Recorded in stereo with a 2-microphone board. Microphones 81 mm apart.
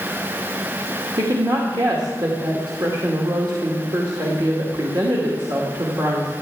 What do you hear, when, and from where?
1.2 s a woman speaking: 55° right (ahead or behind), 2 m